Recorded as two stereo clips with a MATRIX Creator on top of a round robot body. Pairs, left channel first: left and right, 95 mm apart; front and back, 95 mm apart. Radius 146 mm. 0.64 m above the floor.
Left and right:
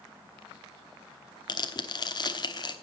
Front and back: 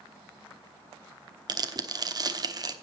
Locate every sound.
1.5 s tearing paper: 130° left, 1.3 m